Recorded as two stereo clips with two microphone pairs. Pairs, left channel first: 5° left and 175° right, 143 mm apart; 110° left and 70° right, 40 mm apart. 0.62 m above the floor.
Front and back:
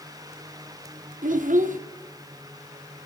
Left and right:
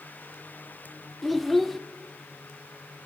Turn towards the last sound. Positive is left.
turn(degrees=-165)